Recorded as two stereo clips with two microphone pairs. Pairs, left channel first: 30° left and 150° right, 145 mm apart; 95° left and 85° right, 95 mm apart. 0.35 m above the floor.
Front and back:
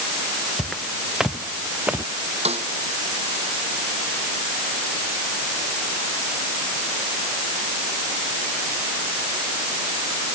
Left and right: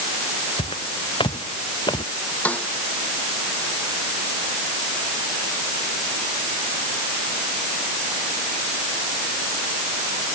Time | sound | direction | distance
0.6 | footsteps | 120° left | ?
2.5 | a snare drum | 170° left | ?